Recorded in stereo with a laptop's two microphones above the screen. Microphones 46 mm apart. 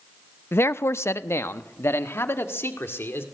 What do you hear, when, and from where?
0.5 s a man speaking: 60° left (ahead or behind), 0.6 m